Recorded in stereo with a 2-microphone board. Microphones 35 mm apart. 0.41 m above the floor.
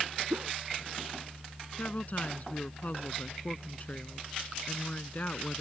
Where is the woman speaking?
45° left (ahead or behind).